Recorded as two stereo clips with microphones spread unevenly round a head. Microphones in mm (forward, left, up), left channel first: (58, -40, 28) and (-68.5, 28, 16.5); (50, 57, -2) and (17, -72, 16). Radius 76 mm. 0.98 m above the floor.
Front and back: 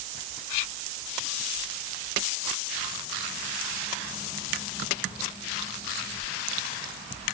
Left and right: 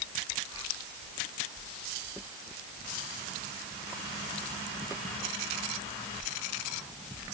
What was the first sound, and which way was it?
Only background noise.